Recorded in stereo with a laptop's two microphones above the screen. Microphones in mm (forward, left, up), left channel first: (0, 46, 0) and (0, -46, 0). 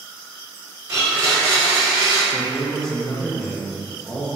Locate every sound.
0.9 s a blender: 35° right (ahead or behind), 0.9 m
2.3 s a man speaking: 5° left (ahead or behind), 0.6 m